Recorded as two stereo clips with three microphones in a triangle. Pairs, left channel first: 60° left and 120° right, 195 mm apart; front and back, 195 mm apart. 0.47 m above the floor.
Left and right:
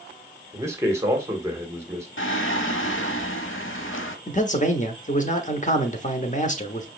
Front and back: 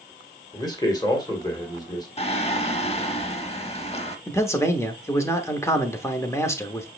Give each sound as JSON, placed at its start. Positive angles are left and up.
{"t": 0.5, "sound": "a man speaking", "azimuth_deg": -50, "distance_m": 1.4}
{"t": 2.2, "sound": "singing", "azimuth_deg": 60, "distance_m": 0.7}
{"t": 4.3, "sound": "a man speaking", "azimuth_deg": 70, "distance_m": 0.9}